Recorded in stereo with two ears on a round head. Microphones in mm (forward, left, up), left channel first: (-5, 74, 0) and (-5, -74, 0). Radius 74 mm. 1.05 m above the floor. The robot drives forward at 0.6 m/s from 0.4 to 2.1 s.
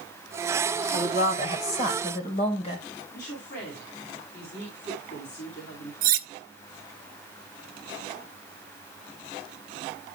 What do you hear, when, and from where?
0.9 s a woman speaking: 45° left (ahead or behind), 3.5 m; by 2.9 s 40° left (ahead or behind), 4 m
3.1 s a woman speaking: 80° left, 5.5 m
6.0 s cutlery clinking: 55° right (ahead or behind), 1.0 m